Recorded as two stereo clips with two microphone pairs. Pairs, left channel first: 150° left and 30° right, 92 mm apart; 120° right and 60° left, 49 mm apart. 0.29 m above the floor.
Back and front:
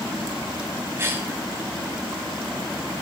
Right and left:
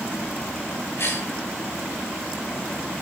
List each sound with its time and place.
1.0 s a cough: 95° right, 4.5 m